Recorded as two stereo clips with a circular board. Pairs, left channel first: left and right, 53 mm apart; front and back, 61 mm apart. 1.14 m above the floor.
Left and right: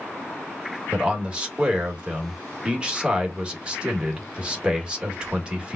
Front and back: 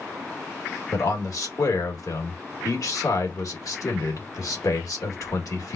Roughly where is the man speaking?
Ahead.